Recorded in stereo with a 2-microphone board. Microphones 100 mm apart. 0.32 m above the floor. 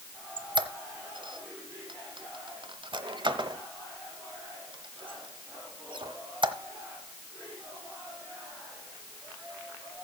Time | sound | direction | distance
0.4 | a squeak | 55° right (ahead or behind) | 1.0 m